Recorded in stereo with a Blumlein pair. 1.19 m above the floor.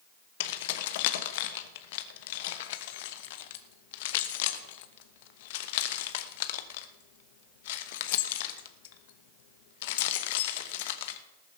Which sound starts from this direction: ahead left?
Keys jangling, at 0.4 s.